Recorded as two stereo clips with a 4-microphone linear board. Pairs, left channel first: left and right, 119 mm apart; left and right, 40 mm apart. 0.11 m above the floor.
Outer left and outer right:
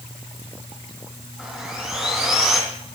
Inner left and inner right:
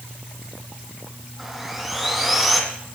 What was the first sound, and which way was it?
Sawing, 10° right (ahead or behind).